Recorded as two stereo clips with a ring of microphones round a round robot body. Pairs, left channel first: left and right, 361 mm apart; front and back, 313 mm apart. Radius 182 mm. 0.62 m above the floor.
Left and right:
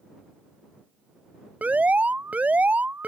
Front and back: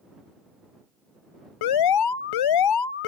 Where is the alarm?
5° right.